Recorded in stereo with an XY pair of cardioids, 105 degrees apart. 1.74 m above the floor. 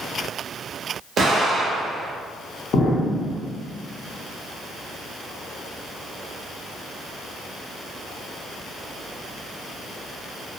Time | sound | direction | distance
1.2 | an explosion | 45° right | 1.1 m
2.7 | an explosion | 65° left | 0.7 m